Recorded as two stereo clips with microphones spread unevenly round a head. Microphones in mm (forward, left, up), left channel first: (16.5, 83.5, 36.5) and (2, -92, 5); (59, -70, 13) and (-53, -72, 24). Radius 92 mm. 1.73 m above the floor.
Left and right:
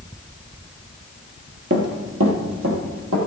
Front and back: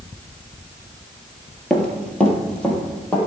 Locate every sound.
1.7 s running footsteps: 85° right, 2.5 m; by 3.2 s 80° right, 4 m